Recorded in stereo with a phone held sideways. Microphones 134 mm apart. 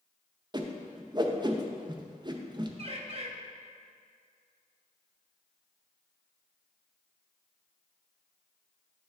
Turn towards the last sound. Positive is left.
turn(degrees=-40)  # may be behind; listen again after turning